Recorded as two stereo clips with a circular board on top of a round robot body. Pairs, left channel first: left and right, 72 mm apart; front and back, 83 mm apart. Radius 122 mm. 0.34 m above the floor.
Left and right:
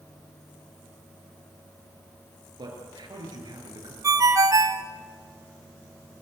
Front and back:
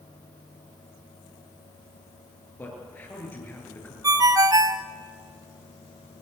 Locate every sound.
2.6 s a man speaking: 70° right, 7 m
4.0 s a ringtone: 135° right, 1.4 m